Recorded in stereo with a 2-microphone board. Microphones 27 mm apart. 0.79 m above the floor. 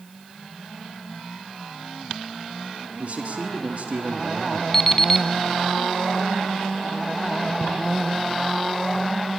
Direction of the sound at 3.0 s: 60° right (ahead or behind).